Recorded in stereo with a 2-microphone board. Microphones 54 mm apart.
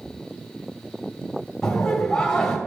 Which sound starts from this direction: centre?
Laughter, at 1.6 s.